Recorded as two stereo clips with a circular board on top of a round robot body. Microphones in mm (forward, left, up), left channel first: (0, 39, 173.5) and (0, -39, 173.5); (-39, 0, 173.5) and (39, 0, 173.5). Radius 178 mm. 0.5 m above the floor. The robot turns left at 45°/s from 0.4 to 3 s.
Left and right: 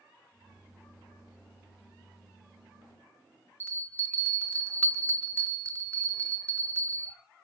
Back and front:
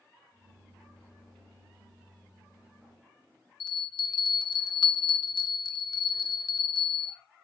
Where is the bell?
160° left, 0.6 m.